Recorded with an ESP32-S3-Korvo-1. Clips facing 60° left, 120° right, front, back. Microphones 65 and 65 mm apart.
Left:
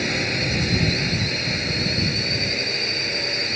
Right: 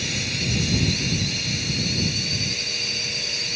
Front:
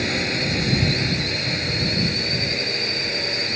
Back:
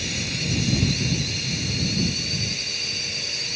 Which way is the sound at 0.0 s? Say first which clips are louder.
Left 5 dB, front 7 dB; 25° left.